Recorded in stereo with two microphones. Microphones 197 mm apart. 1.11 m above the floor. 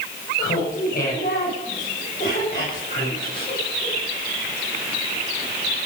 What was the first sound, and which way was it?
Laughter, 50° left (ahead or behind).